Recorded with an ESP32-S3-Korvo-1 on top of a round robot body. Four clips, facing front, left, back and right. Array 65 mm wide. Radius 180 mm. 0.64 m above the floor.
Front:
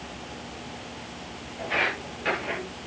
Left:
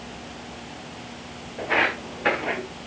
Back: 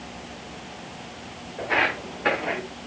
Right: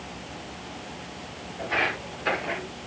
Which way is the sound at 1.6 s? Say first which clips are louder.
Left 4 dB, back 4 dB; 130° left.